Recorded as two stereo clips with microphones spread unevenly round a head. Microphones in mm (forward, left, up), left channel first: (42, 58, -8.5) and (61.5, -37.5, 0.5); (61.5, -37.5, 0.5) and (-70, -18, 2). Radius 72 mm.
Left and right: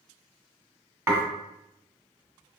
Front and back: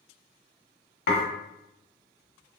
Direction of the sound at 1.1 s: 10° right.